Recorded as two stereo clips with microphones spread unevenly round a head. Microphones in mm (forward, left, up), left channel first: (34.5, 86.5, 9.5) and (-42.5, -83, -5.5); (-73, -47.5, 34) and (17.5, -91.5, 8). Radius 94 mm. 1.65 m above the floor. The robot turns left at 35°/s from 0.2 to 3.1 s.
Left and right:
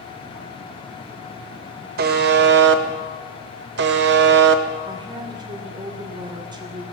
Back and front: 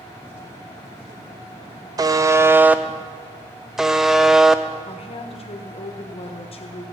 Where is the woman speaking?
175° left, 1.5 m.